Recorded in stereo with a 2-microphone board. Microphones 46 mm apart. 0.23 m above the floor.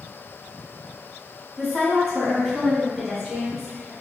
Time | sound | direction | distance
1.6 | a woman speaking | 10° left (ahead or behind) | 1.2 m